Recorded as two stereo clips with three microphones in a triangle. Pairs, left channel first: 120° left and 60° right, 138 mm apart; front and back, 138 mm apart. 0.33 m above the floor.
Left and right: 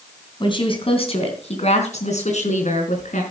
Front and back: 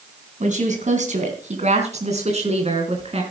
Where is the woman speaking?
170° left, 3 m; by 3.2 s 140° left, 4.5 m.